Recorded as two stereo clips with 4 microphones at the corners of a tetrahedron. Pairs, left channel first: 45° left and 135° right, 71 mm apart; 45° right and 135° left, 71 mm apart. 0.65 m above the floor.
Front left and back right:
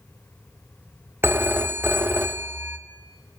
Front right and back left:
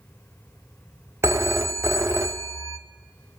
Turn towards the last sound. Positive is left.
turn(degrees=175)